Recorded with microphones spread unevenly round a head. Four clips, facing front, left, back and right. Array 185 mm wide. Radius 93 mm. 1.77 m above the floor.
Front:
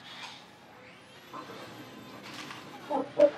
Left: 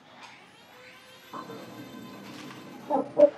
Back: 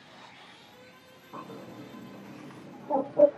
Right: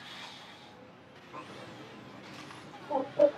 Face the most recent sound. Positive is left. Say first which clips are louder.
# left 6 dB, back 1 dB
turn(degrees=105)